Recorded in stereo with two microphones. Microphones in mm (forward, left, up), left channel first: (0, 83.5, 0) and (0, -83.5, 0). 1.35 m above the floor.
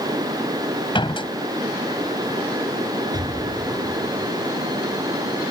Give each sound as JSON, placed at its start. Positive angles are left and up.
{"t": 0.9, "sound": "a door slam", "side_deg": 30}
{"t": 3.1, "sound": "an explosion", "side_deg": -25}